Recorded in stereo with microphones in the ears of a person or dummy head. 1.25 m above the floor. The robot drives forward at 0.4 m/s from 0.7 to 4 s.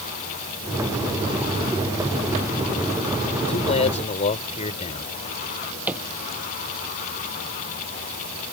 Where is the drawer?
10° right (ahead or behind).